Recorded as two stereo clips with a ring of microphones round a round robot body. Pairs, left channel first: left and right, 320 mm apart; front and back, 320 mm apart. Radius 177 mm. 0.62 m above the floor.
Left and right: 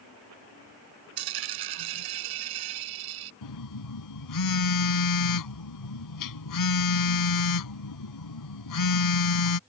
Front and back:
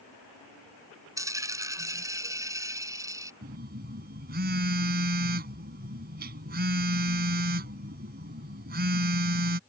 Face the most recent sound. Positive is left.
turn(degrees=115)